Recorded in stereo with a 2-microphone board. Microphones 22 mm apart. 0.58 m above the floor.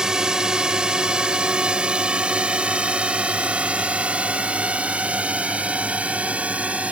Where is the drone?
30° right (ahead or behind); by 6.9 s 70° right (ahead or behind).